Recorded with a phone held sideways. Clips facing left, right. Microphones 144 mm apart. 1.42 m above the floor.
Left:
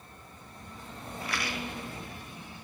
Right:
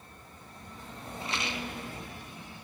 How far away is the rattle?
About 0.6 m.